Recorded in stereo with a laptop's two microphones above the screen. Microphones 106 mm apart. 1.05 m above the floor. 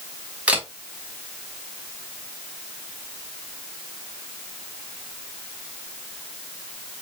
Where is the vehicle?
No vehicle in this recording.